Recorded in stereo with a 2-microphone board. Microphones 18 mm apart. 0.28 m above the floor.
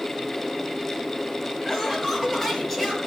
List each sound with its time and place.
1.6 s laughter: 10° left (ahead or behind), 5.5 m; by 3.0 s 15° left (ahead or behind), 6 m